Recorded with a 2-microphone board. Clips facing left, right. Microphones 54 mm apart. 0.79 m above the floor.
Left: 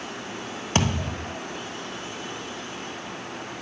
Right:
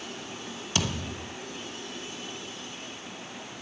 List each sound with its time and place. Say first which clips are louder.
0.8 s a thud: left 6 dB; 40° left (ahead or behind), 1.5 m